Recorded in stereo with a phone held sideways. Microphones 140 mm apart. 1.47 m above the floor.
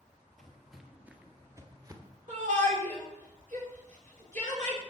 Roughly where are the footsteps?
Centre.